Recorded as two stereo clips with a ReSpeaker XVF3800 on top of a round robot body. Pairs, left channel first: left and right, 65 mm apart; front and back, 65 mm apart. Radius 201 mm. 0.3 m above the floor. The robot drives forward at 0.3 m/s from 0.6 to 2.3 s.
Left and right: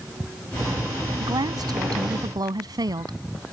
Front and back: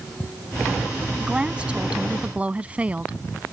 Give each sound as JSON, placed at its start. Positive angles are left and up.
{"t": 1.2, "sound": "a woman speaking", "azimuth_deg": -105}